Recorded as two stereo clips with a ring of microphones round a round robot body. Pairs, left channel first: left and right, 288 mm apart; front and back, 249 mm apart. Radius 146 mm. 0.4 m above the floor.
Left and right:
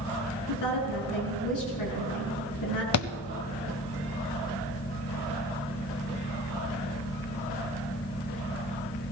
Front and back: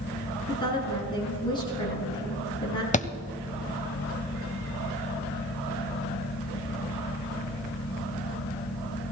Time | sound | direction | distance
0.5 | a woman speaking | 70° left | 5.5 m
2.9 | a thud | 60° left | 0.7 m